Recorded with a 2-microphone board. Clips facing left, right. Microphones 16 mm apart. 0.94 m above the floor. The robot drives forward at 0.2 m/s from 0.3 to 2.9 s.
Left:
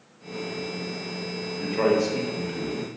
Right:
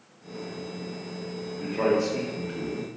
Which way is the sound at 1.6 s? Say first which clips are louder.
Left 2 dB; 30° left (ahead or behind).